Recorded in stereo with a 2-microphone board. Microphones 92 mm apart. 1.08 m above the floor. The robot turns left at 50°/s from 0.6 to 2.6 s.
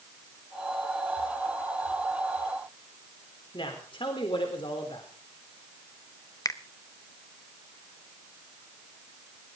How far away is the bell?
No bell in this recording.